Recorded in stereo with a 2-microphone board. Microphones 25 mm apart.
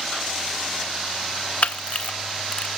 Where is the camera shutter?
60° left (ahead or behind), 0.6 m.